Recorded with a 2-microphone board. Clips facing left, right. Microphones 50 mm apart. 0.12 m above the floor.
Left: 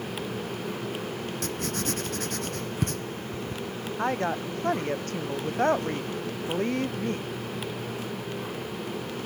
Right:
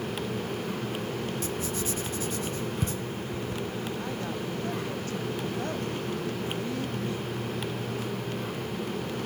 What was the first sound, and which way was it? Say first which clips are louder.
Writing: left 1 dB; 70° left (ahead or behind).